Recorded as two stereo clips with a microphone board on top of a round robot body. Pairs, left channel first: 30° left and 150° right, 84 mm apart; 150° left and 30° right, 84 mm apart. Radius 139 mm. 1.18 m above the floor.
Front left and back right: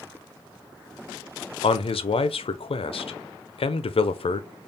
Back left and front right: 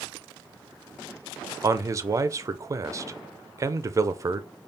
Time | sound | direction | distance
1.6 | a man speaking | 25° left | 0.6 m